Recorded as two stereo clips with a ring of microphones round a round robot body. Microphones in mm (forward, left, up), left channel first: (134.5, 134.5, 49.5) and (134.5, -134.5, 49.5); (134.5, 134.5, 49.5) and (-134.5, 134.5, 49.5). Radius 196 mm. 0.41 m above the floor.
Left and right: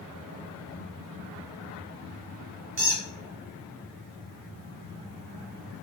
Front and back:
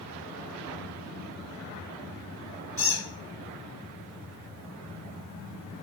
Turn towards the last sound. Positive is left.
turn(degrees=-105)